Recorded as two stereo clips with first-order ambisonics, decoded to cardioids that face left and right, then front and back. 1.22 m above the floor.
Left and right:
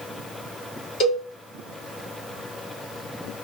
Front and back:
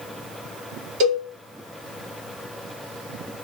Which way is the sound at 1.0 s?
140° left.